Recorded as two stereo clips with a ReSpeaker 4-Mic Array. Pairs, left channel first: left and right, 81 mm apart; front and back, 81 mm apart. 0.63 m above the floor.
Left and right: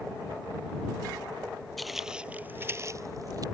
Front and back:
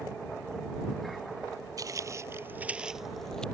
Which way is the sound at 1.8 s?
Straight behind.